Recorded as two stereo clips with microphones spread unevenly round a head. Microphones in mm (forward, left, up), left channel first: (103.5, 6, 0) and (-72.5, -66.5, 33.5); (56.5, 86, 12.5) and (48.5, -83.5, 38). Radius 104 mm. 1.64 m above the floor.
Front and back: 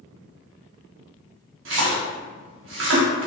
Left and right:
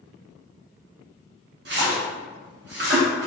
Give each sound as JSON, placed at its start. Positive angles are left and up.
{"t": 1.6, "sound": "a splash", "azimuth_deg": -135, "distance_m": 1.1}